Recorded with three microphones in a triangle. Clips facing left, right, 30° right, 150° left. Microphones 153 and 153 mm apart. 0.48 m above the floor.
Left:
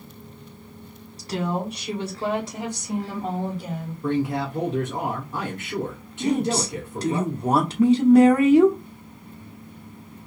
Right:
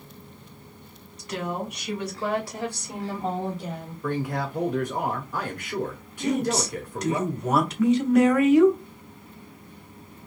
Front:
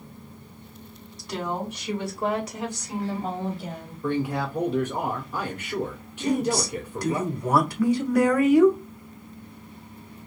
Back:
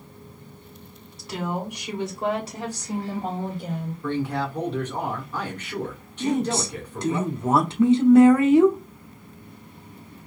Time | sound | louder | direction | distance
1.2 | a woman speaking | left 4 dB, back 1 dB | 65° left | 1.5 m
4.0 | a man speaking | left 4 dB, front 1 dB | 45° left | 1.3 m
6.2 | a woman speaking | left 2 dB, even | 110° left | 0.8 m